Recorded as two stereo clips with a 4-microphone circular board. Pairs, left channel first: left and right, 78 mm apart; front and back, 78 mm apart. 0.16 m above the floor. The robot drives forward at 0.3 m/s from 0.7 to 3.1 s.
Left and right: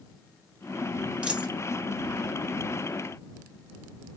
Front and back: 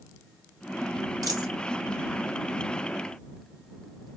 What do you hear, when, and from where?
1.2 s a dropped coin: 160° right, 0.9 m; by 1.5 s 165° right, 1.0 m